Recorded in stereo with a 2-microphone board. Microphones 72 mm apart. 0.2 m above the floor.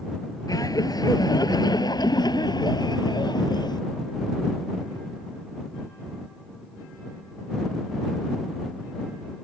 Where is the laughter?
60° left (ahead or behind); by 3.8 s 75° left (ahead or behind).